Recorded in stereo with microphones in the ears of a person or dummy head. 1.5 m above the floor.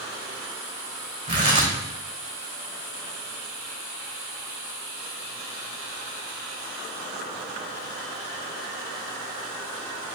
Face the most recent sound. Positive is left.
turn(degrees=-25)  # may be behind; listen again after turning